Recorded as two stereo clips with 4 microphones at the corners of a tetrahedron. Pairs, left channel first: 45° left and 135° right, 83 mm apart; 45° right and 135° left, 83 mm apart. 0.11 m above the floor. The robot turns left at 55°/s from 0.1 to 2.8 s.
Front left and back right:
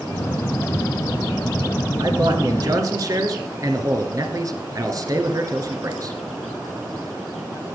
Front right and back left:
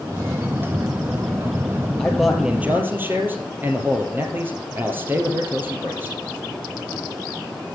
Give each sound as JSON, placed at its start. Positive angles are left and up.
{"t": 2.0, "sound": "a man speaking", "azimuth_deg": -120, "distance_m": 1.8}